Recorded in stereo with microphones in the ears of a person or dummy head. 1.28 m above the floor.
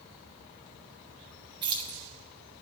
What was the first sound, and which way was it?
Keys jangling, 30° right (ahead or behind).